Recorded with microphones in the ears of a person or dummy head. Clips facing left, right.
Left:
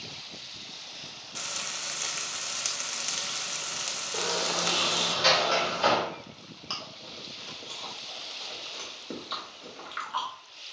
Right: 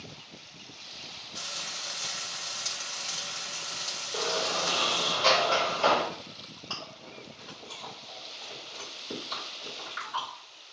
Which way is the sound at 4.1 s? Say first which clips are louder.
Right 1 dB; 15° left (ahead or behind).